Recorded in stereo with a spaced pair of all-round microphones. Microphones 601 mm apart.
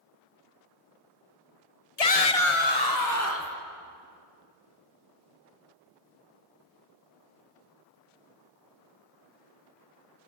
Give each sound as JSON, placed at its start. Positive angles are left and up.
{"t": 2.0, "sound": "a shout", "side_deg": 80, "distance_m": 1.3}